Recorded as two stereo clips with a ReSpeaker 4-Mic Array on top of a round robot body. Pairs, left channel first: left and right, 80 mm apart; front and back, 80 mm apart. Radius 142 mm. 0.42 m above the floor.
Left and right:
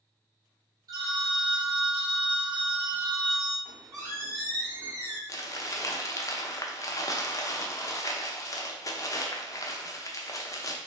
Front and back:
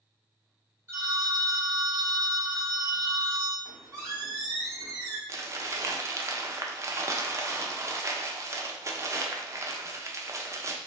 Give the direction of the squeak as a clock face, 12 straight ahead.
5 o'clock.